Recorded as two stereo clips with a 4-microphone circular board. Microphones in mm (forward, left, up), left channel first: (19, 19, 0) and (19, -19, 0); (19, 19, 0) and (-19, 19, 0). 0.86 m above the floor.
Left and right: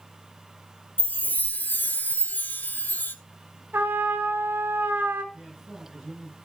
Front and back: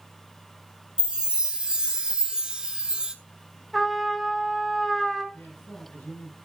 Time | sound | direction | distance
1.0 | a chime | 115° left | 1.1 m
3.7 | a trumpet | 85° right | 1.5 m
5.3 | a man speaking | 5° right | 5.5 m